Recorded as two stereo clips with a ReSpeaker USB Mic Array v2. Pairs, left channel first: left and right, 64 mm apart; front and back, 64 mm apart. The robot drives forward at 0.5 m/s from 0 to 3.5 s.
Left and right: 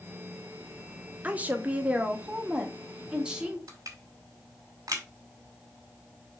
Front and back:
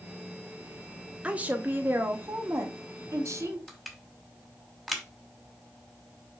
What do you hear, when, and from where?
1.2 s a woman speaking: 130° right, 1.0 m; by 3.6 s 165° right, 1.8 m
3.7 s crushing: 90° right, 2.5 m